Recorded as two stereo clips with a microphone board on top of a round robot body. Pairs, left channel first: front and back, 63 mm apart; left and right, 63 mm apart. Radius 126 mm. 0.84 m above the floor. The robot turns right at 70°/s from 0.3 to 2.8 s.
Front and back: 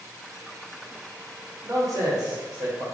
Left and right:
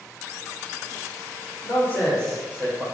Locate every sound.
1.6 s a man speaking: 130° left, 2.5 m; by 2.9 s 150° right, 2.5 m